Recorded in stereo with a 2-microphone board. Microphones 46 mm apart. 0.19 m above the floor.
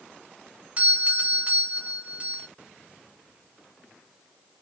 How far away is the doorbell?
About 1.7 m.